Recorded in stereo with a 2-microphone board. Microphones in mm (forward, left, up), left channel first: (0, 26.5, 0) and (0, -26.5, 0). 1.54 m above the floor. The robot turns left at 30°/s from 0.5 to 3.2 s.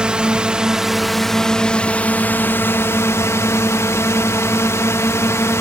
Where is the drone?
160° right; by 5.6 s 120° left.